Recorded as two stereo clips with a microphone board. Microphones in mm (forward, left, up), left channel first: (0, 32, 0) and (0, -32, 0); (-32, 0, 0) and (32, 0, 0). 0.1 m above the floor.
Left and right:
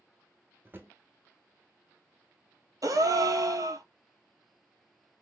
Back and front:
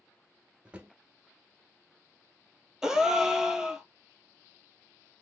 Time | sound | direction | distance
0.7 | a drawer | 55° right | 0.7 m
2.8 | a gasp | 80° right | 0.5 m